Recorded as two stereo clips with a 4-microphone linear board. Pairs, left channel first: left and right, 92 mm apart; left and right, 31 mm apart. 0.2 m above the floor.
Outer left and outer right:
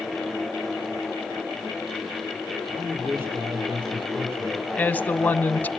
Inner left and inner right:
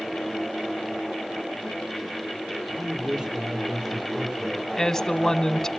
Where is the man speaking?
25° right (ahead or behind), 5.5 m.